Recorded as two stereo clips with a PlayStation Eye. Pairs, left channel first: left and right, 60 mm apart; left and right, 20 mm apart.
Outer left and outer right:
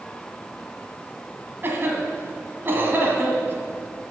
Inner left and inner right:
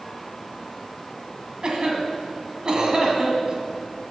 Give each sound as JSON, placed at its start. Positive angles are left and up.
{"t": 1.6, "sound": "a cough", "side_deg": -40, "distance_m": 1.8}